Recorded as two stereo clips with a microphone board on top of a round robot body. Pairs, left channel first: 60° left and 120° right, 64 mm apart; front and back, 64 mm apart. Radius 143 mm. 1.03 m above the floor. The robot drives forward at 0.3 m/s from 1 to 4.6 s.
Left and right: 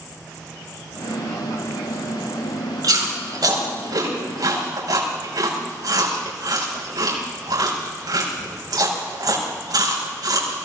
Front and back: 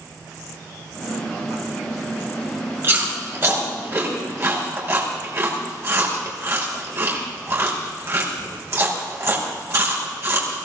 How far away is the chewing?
About 5.5 m.